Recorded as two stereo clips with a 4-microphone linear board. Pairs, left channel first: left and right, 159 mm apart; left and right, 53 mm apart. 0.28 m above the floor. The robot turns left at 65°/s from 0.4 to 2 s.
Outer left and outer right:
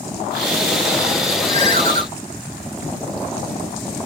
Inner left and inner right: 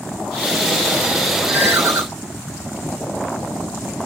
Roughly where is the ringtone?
Ahead right.